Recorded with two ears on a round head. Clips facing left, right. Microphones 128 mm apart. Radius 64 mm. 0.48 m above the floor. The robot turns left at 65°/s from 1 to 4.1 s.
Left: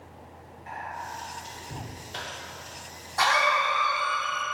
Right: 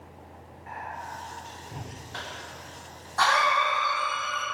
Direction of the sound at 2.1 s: 25° left (ahead or behind).